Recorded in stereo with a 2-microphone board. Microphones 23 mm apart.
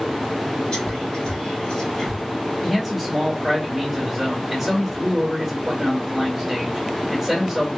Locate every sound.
0.7 s whispering: 50° left (ahead or behind), 1.9 m
2.6 s a man speaking: centre (ahead or behind), 1.5 m